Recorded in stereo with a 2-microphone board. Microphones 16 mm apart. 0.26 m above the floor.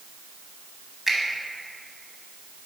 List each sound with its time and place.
1.1 s a finger snap: 30° right (ahead or behind), 1.2 m